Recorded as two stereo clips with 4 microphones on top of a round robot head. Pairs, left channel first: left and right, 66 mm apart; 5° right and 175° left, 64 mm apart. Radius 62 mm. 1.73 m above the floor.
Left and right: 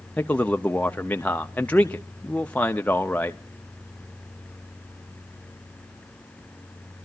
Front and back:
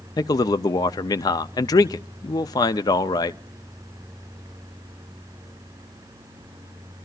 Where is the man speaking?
15° left, 0.5 m.